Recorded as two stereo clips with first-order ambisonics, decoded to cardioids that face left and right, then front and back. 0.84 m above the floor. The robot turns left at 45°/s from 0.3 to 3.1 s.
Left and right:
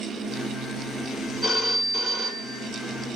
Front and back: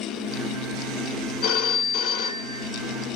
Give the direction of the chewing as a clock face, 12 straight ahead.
No chewing in this recording.